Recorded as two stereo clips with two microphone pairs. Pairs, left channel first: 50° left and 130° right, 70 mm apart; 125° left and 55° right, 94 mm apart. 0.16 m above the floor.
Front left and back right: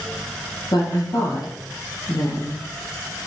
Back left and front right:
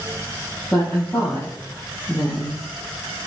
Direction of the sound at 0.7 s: 65° left.